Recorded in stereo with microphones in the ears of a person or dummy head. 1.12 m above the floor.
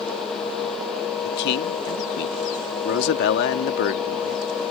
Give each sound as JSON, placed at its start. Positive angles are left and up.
{"t": 1.2, "sound": "a man speaking", "side_deg": 65}